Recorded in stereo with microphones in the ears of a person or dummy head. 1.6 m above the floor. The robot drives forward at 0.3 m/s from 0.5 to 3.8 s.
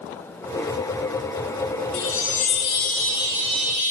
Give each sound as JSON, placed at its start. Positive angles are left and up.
{"t": 1.9, "sound": "a chime", "side_deg": 65, "distance_m": 0.5}